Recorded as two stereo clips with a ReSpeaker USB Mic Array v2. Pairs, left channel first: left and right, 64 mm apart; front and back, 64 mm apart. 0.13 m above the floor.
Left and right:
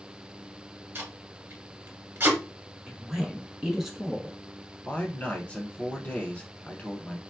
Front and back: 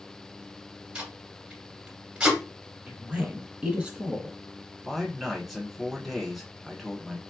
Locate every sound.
0.9 s tape being pulled: 120° right, 1.7 m
2.9 s a woman speaking: 155° right, 1.1 m
4.8 s a man speaking: 95° left, 1.1 m